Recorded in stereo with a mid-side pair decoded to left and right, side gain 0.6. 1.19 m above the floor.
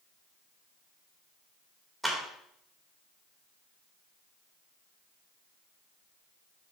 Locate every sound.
2.0 s a clap: 5° right, 3.5 m